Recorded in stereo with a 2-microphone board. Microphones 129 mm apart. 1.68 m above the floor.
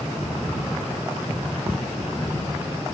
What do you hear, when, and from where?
1.3 s ticking: 85° left, 2.5 m